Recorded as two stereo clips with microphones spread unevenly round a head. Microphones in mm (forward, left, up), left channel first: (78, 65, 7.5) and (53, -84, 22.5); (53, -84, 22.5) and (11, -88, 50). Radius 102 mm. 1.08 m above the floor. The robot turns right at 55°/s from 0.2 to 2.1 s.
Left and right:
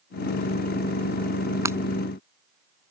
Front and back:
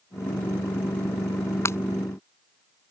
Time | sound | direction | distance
1.6 | breaking glass | 30° right | ?